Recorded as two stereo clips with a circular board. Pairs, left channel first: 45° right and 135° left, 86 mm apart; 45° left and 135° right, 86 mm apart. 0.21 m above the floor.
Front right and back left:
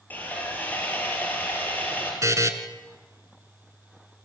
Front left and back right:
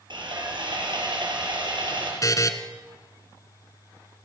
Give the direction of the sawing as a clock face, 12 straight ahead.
4 o'clock.